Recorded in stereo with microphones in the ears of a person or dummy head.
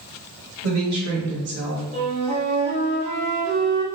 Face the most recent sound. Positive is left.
turn(degrees=-35)  # may be behind; listen again after turning